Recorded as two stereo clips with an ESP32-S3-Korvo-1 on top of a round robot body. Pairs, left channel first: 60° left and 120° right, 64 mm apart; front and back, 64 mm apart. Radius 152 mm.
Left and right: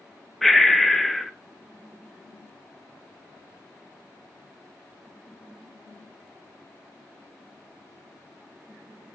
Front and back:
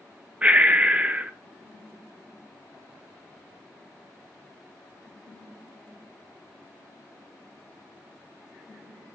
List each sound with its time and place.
0.4 s breathing: 145° left, 0.5 m